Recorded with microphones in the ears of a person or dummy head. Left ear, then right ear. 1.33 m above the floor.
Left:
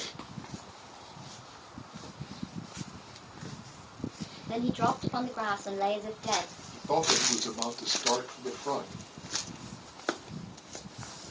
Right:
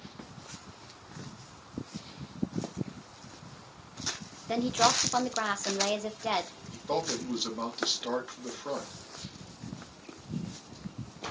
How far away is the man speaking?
About 2.5 m.